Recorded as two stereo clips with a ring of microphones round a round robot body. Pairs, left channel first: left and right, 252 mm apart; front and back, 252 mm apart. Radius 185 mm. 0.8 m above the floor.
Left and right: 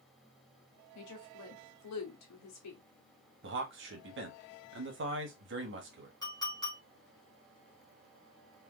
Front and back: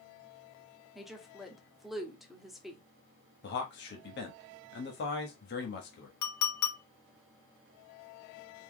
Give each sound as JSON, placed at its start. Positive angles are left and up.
{"t": 0.9, "sound": "a woman speaking", "azimuth_deg": 90, "distance_m": 1.5}
{"t": 3.4, "sound": "a man speaking", "azimuth_deg": -50, "distance_m": 1.0}
{"t": 6.2, "sound": "a clink", "azimuth_deg": 10, "distance_m": 1.6}